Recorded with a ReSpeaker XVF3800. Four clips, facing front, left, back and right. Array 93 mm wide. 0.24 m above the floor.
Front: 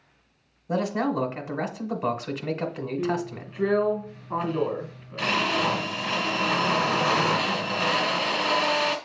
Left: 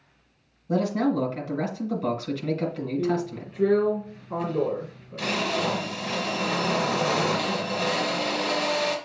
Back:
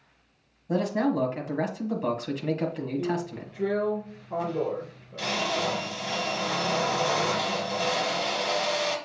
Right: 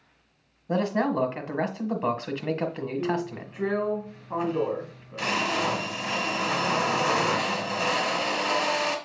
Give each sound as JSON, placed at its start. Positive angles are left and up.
{"t": 0.7, "sound": "a man speaking", "azimuth_deg": -65, "distance_m": 1.3}
{"t": 3.0, "sound": "a drill", "azimuth_deg": -30, "distance_m": 1.3}